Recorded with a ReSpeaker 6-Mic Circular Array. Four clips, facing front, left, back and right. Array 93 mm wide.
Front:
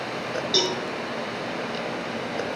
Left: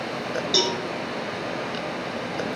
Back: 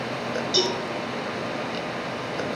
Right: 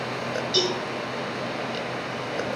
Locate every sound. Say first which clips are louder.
0.5 s a cowbell: even, back 1 dB; 65° left, 2 m